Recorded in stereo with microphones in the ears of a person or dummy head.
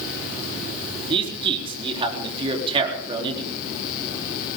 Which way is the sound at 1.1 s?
35° right (ahead or behind).